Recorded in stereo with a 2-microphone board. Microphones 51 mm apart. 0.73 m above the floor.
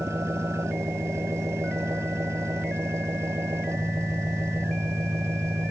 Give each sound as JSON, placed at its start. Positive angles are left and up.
{"t": 0.0, "sound": "an engine running", "side_deg": -65}